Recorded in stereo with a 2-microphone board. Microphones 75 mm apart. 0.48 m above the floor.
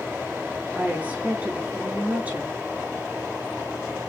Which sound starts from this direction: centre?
A woman speaking, at 0.8 s.